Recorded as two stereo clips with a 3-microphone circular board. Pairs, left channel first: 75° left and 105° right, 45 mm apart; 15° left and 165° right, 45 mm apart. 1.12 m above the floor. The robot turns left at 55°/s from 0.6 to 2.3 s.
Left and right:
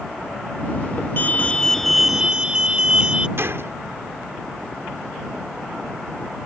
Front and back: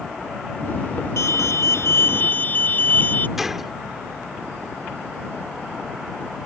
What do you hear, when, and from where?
1.2 s an alarm: 30° left; by 3.3 s 35° right
3.4 s a gunshot: 80° right